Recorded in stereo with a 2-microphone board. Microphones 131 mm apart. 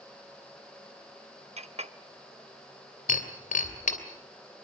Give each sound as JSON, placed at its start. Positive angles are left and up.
{"t": 1.6, "sound": "a clink", "side_deg": -55, "distance_m": 0.9}
{"t": 3.1, "sound": "breaking glass", "side_deg": 70, "distance_m": 2.5}